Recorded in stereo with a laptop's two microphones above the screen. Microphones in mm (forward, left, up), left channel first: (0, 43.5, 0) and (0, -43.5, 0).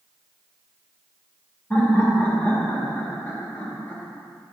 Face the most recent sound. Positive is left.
turn(degrees=25)  # may be behind; listen again after turning